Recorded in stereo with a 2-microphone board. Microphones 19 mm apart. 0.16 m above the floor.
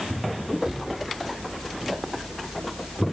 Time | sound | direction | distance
0.6 | a cupboard door | 45° right (ahead or behind) | 3 m